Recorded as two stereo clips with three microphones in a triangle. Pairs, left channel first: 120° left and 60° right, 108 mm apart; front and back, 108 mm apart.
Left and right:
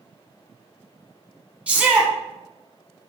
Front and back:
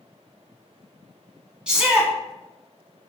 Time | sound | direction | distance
1.7 | a shout | 115° right | 1.0 m